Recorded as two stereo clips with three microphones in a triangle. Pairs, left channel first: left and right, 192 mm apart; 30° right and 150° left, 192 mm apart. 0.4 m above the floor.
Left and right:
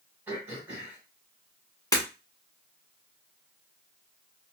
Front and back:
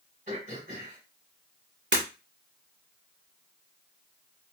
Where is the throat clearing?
165° right, 2 m.